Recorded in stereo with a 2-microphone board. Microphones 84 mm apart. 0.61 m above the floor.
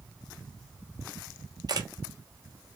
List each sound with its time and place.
1.7 s a camera shutter: 50° right (ahead or behind), 0.7 m